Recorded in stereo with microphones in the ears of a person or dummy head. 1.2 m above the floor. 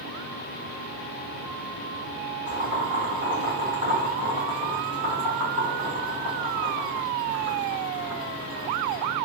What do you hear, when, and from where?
2.5 s boiling: 30° right (ahead or behind), 1.5 m